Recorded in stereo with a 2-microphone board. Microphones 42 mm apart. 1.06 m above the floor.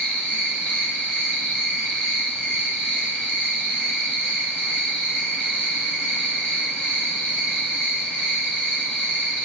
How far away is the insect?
About 2.5 m.